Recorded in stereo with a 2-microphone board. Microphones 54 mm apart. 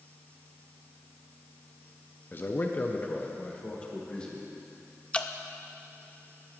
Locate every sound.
2.3 s a man speaking: 40° left (ahead or behind), 0.7 m; by 4.5 s 20° left (ahead or behind), 2 m
5.1 s dripping: 20° left (ahead or behind), 0.5 m